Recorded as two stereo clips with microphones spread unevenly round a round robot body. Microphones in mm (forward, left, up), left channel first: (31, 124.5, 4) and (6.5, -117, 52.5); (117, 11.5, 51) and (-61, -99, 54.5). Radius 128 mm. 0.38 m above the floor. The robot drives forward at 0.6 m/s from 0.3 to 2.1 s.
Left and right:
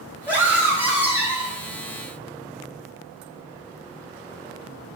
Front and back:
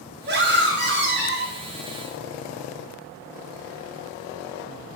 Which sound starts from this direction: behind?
A scream, at 0.3 s.